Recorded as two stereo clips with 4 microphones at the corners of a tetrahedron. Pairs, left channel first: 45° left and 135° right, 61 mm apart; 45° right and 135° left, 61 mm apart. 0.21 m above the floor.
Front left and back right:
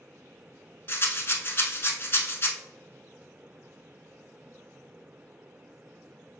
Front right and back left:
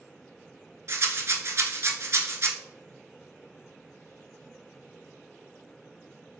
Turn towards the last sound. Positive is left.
turn(degrees=95)